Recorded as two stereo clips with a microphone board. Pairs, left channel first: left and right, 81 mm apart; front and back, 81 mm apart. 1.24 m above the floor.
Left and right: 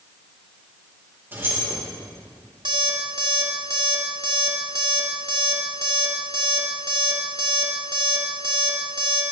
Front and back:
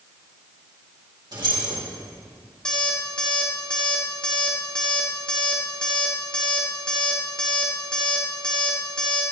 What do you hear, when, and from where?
1.3 s keys jangling: 155° right, 3.5 m
2.6 s an alarm clock: 80° right, 1.6 m